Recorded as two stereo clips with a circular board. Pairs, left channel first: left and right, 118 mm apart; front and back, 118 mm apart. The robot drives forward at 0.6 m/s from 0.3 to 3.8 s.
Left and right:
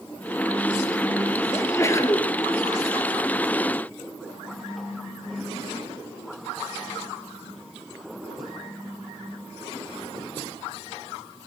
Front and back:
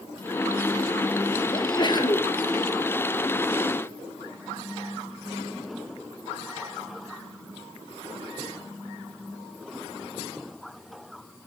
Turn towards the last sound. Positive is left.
turn(degrees=85)